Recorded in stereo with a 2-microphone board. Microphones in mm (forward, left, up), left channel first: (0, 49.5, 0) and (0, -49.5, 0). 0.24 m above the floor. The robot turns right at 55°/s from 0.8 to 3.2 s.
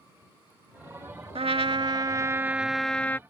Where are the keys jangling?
No keys jangling in this recording.